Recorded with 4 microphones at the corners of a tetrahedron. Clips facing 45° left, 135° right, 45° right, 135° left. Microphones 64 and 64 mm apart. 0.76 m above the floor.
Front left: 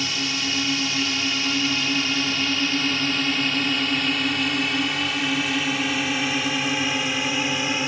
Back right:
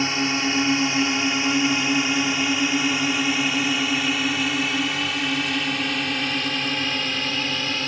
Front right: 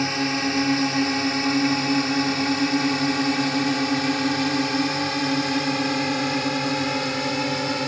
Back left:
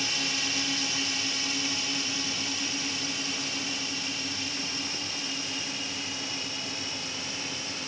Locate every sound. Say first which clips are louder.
0.0 s a drone: back right 5 dB, front right 10 dB; 85° right; by 7.9 s 30° right